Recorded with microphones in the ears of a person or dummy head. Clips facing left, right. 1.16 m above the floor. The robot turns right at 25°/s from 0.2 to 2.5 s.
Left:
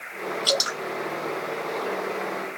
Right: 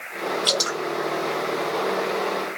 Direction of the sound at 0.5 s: 10° left (ahead or behind).